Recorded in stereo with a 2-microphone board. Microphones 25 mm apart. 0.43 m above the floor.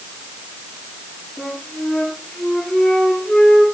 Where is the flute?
30° left (ahead or behind), 7.5 m.